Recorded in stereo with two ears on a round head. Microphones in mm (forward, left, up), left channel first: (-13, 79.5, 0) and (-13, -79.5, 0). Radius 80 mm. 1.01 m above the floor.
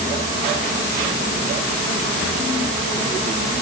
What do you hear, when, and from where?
Only background noise.